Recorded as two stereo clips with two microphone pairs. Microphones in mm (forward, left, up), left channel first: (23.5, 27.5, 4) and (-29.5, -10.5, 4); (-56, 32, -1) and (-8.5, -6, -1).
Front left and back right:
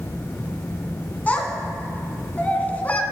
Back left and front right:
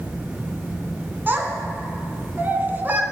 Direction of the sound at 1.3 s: 10° right.